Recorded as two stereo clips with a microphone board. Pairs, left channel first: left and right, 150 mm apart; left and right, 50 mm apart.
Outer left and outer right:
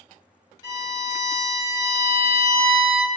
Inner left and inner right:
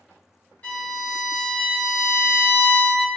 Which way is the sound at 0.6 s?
30° left (ahead or behind).